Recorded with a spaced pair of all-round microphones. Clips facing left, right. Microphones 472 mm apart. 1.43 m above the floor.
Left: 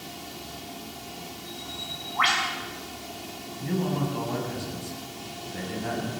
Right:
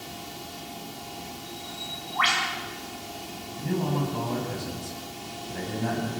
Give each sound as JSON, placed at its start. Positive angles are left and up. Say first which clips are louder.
{"t": 1.5, "sound": "a bird", "louder": "even", "side_deg": 0, "distance_m": 6.0}
{"t": 3.6, "sound": "a man speaking", "louder": "even", "side_deg": -60, "distance_m": 9.0}